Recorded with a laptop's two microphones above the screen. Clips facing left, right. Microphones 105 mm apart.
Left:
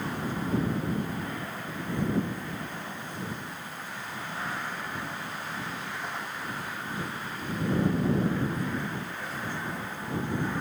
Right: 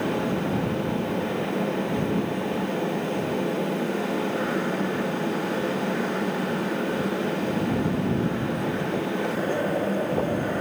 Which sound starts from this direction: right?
A fan, at 0.0 s.